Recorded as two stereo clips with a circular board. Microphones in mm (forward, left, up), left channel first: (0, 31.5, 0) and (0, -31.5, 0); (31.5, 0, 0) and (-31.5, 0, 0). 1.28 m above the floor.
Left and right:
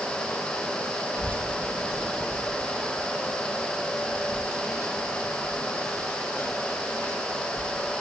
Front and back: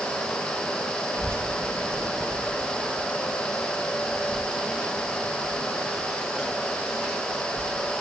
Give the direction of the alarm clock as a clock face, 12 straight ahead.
No alarm clock in this recording.